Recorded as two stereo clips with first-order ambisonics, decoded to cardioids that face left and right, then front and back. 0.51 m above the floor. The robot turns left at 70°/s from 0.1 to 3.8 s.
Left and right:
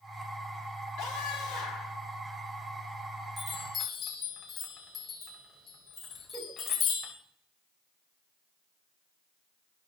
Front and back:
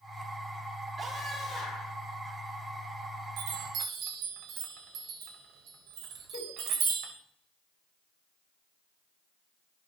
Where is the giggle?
Straight ahead, 2.5 m.